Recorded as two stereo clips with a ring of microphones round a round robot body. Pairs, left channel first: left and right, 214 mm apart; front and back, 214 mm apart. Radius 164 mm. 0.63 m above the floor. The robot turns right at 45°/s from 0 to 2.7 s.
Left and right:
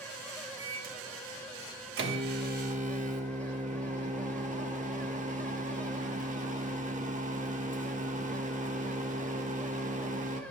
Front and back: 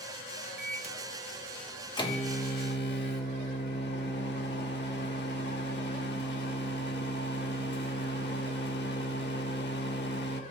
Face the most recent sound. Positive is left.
turn(degrees=-35)